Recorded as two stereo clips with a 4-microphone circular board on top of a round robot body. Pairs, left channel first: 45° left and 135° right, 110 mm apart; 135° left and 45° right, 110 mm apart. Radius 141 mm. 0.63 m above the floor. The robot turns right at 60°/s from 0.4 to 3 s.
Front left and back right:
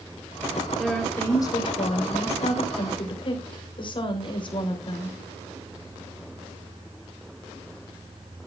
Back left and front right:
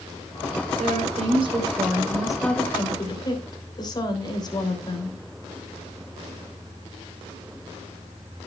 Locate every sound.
0.8 s a woman speaking: 50° right, 3.5 m; by 5.2 s 85° left, 3.5 m